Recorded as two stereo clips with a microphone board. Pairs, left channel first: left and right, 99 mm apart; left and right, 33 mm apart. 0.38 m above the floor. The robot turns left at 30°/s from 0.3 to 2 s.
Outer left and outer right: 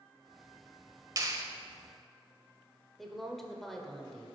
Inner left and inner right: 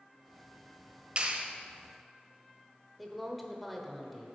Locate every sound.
1.2 s a clap: 40° right (ahead or behind), 1.1 m; by 1.4 s 45° right (ahead or behind), 1.1 m
3.0 s a woman speaking: centre (ahead or behind), 1.1 m